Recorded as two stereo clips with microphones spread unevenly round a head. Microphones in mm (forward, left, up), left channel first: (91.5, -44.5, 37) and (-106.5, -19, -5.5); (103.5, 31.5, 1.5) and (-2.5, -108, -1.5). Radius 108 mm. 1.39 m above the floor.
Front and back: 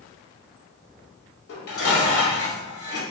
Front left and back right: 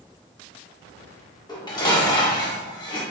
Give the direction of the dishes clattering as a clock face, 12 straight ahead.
12 o'clock.